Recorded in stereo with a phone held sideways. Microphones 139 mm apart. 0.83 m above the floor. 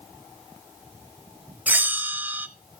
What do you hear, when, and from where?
1.7 s a bell: 10° right (ahead or behind), 0.6 m